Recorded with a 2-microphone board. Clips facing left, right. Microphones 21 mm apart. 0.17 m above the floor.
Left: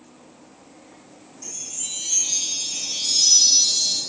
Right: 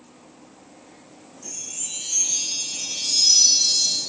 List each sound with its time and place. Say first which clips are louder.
1.4 s a chime: left 1 dB; 80° left, 4.5 m